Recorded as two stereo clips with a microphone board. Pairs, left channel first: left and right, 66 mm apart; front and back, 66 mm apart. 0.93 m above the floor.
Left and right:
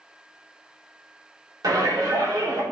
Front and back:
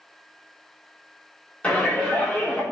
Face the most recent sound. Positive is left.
turn(degrees=-70)